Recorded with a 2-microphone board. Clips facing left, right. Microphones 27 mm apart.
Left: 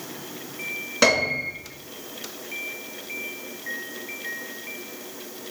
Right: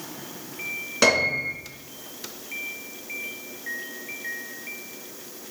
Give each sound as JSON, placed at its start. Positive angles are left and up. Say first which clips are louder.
{"t": 1.0, "sound": "a piano", "louder": "even", "side_deg": 5, "distance_m": 3.0}